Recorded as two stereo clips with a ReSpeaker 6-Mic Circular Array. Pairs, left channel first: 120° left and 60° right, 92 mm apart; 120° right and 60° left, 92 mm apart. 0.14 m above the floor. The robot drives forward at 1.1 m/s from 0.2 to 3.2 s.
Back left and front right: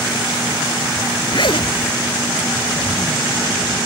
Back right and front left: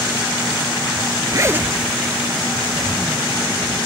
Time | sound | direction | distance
1.3 | a zipper | 100° left | 0.5 m